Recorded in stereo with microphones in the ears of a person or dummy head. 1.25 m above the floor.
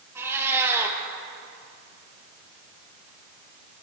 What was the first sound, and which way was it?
A cat meowing, 15° right (ahead or behind).